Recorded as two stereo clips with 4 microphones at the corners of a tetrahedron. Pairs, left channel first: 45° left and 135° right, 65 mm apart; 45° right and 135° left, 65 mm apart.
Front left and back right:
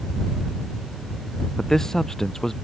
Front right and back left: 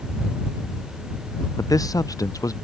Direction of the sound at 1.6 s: 35° right.